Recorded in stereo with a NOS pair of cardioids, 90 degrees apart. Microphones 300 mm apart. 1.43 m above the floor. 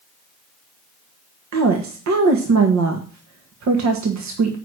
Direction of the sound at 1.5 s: 60° right.